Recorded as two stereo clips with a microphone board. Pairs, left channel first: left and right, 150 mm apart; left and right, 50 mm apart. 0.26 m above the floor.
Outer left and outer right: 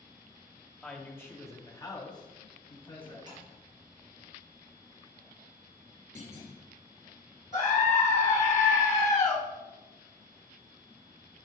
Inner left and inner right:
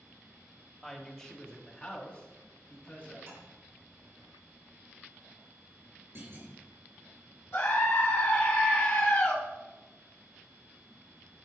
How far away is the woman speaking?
About 1.1 m.